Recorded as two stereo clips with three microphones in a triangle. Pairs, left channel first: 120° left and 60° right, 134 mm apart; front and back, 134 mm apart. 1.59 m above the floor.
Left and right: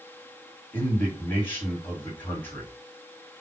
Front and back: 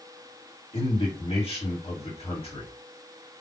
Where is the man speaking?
45° left, 2.5 m.